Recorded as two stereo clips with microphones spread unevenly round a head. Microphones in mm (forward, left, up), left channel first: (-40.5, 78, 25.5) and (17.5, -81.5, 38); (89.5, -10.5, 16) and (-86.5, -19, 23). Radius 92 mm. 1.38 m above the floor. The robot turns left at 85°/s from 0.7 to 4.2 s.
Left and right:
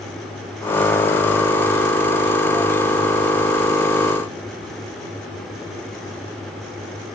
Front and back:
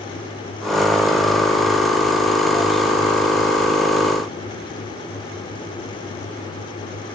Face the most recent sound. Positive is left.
No sound to turn to.